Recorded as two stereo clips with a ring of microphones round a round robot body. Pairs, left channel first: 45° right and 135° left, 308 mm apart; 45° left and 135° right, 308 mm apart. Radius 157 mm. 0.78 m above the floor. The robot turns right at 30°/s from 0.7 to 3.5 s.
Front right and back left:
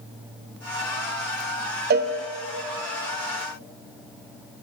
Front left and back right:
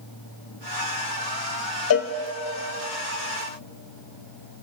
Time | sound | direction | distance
1.9 | a cowbell | 80° left | 0.5 m